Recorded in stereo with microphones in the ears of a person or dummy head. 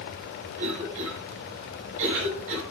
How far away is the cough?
About 8.5 m.